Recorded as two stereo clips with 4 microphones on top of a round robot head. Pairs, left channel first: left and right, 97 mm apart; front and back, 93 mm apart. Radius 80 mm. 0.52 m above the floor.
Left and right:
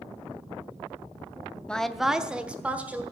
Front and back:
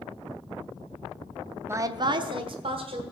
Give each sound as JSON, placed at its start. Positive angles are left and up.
{"t": 1.7, "sound": "a woman speaking", "azimuth_deg": 160, "distance_m": 0.7}